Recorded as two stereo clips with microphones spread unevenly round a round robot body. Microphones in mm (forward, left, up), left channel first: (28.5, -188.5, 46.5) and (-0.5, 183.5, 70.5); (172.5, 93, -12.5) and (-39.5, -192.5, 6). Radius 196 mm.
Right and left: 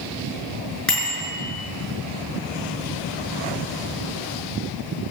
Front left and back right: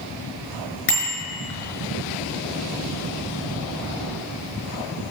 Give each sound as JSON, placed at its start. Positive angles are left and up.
{"t": 0.9, "sound": "a bicycle bell", "azimuth_deg": 5, "distance_m": 6.0}